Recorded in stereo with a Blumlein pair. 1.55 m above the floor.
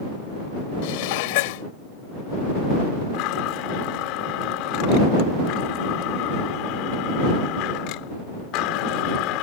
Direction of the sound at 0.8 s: 50° left.